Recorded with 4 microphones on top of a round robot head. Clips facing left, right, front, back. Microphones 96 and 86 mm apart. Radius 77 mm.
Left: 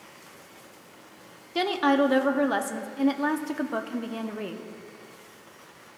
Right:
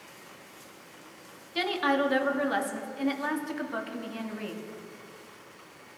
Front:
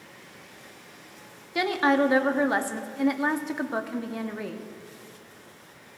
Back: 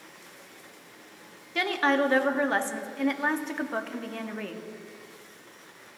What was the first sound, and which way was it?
A woman speaking, 70° left.